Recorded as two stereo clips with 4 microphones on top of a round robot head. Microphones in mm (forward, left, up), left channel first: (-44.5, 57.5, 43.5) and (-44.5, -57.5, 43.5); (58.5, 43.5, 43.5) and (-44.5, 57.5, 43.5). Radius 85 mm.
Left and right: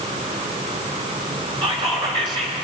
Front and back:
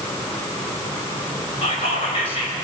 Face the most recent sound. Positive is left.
turn(degrees=-40)